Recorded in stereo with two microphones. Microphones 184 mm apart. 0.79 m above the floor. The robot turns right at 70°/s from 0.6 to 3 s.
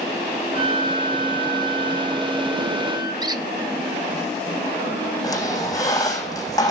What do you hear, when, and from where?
0.5 s a flute: 135° left, 4.5 m; by 3.1 s 60° right, 4.5 m
3.2 s a squeak: 20° right (ahead or behind), 0.9 m
5.2 s a squeak: 20° left (ahead or behind), 4.5 m